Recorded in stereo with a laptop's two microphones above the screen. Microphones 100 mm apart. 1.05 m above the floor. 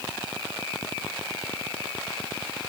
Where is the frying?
No frying in this recording.